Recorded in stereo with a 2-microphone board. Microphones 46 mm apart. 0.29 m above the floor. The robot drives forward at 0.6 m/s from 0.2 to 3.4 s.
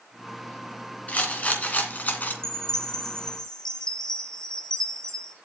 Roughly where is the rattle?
Left.